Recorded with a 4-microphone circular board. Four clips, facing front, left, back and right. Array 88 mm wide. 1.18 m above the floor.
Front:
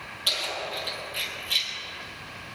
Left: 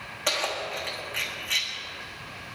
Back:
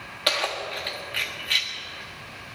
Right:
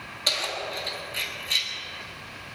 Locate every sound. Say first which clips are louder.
0.3 s keys jangling: left 2 dB, back 5 dB; 155° left, 1.6 m